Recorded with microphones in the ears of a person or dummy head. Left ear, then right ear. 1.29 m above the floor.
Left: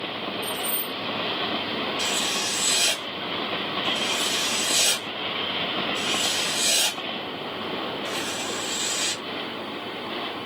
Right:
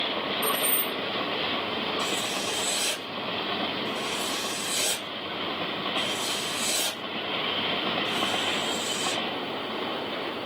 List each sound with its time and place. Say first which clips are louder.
0.4 s keys jangling: right 2 dB; 65° right (ahead or behind), 1.3 m
2.0 s writing: left 3 dB; 50° left (ahead or behind), 1.5 m